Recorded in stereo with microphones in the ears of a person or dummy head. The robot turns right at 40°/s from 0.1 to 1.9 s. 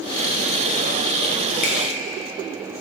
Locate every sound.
1.6 s a finger snap: 45° left (ahead or behind), 1.2 m; by 1.8 s 40° left (ahead or behind), 1.2 m